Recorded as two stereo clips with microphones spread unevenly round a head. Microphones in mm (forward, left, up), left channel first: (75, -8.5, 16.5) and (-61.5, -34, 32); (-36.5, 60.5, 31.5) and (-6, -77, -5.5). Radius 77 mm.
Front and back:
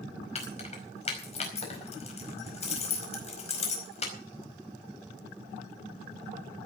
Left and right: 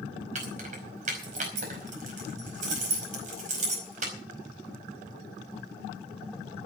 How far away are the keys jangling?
About 4.5 m.